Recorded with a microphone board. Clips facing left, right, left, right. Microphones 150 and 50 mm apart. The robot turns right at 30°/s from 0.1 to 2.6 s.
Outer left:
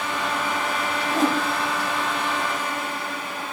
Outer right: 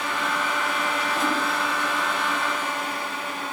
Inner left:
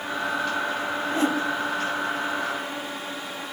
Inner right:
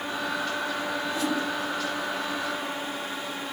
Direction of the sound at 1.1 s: 45° left (ahead or behind).